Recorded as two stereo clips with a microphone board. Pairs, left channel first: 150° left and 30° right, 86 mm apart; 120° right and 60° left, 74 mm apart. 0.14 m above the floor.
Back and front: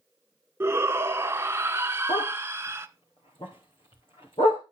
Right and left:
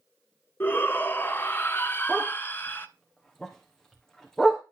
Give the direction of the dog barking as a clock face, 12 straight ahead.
7 o'clock.